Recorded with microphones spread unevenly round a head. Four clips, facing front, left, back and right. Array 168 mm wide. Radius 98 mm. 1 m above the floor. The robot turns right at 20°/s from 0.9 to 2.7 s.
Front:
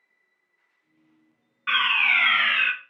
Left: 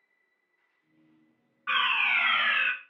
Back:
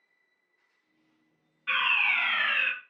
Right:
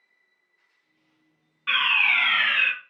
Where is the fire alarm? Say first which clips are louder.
Right 2 dB, front 5 dB; 15° right, 1.7 m; by 2.7 s 10° left, 1.7 m.